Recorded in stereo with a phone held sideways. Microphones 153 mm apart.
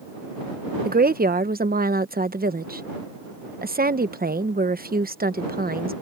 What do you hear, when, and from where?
0.8 s a woman speaking: 80° right